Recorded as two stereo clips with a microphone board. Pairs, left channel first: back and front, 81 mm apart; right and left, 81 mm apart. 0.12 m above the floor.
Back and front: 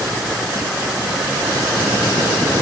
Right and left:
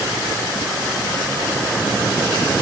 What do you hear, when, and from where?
Only background noise.